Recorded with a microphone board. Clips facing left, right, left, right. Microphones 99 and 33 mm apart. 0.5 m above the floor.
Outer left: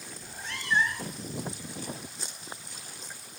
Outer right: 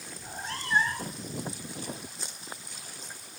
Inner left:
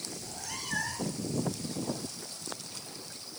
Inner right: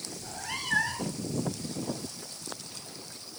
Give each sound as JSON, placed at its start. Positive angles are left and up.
{"t": 0.2, "sound": "a cat meowing", "side_deg": -40, "distance_m": 1.3}